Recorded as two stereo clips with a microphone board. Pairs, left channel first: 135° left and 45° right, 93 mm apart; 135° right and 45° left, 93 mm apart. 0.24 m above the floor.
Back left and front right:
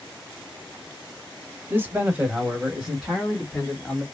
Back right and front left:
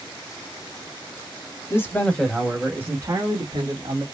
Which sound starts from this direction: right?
A man speaking, at 1.7 s.